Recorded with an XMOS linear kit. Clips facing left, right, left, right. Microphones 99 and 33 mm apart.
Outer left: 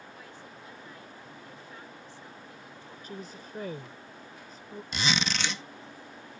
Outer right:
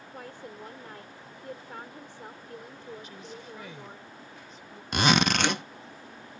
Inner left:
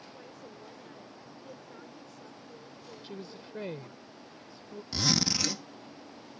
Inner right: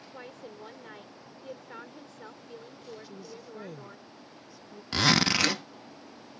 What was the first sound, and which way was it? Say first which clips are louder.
A woman speaking: outer right 5 dB, inner right 4 dB; 60° right (ahead or behind).